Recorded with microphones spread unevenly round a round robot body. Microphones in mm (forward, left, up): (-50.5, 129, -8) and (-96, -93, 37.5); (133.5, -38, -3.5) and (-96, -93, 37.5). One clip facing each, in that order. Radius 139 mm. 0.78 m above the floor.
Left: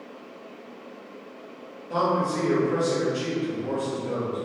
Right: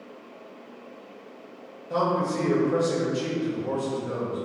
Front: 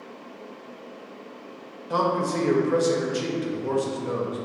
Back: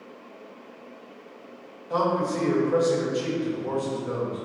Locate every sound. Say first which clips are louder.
1.9 s a man speaking: even, even; 10° right, 0.5 m